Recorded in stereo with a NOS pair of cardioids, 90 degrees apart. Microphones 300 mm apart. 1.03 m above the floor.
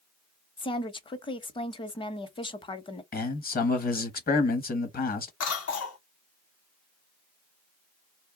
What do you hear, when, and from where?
0.6 s a woman speaking: 15° left, 0.7 m
3.1 s a man speaking: 30° left, 1.0 m
5.4 s a cough: 55° left, 1.0 m